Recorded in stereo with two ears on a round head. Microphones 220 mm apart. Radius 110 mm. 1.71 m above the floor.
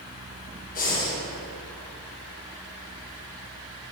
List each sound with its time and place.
0.8 s breathing: 35° left (ahead or behind), 1.4 m